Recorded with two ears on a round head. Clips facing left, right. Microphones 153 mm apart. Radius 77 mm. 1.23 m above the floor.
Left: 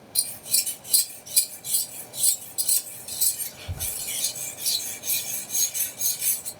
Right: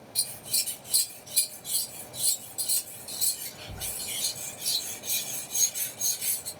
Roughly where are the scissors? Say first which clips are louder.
Left 1 dB; left.